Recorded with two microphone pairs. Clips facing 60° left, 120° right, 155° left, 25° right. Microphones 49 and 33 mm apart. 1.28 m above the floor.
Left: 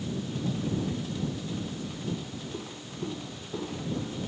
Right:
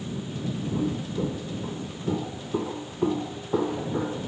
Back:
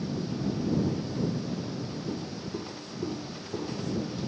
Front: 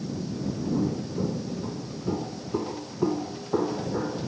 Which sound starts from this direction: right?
Footsteps, at 0.7 s.